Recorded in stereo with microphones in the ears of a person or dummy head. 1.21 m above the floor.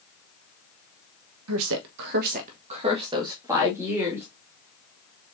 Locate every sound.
1.5 s a woman speaking: 85° right, 1.1 m; by 4.3 s 15° right (ahead or behind), 2.5 m